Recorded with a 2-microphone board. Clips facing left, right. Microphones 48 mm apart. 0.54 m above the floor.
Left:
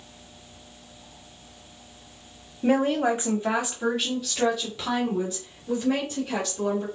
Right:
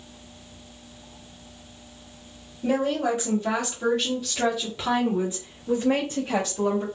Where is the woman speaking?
40° left (ahead or behind), 1.2 m; by 6.8 s 30° right (ahead or behind), 3 m.